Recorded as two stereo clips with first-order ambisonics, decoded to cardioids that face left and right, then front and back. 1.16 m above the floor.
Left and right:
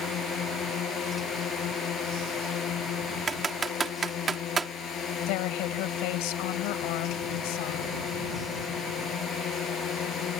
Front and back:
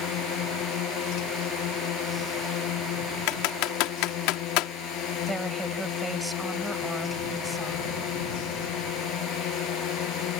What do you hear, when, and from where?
0.0 s a drone: 40° left
3.3 s typing on a keyboard: 20° right
5.3 s a woman speaking: 95° left